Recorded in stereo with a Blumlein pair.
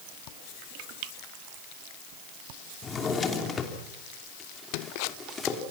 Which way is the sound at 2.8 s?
20° left.